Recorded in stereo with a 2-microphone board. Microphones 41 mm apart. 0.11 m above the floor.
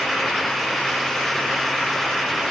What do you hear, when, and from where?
Only background noise.